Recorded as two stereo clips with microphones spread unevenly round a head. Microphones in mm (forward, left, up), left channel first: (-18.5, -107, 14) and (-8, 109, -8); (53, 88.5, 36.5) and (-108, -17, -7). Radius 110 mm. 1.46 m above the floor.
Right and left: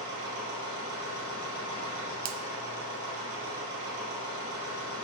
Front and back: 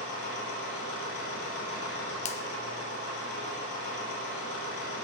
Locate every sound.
0.0 s a machine running: 60° left, 3.5 m
2.2 s a finger snap: 80° left, 0.6 m